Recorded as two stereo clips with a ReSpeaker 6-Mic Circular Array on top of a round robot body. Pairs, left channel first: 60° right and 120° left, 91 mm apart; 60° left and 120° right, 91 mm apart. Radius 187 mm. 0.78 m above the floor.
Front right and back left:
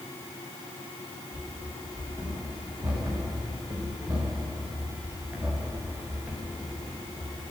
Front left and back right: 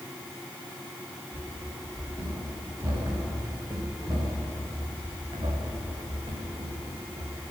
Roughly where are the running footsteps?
Behind.